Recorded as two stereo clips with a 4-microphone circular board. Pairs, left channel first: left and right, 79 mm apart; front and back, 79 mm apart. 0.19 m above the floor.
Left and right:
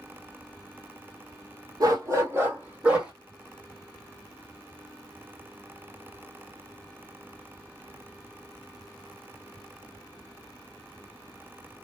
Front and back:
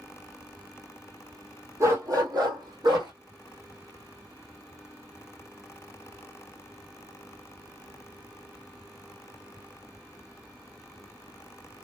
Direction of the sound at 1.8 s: 130° right.